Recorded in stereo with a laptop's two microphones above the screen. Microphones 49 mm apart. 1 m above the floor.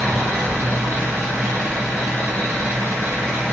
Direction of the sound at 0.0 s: 80° right.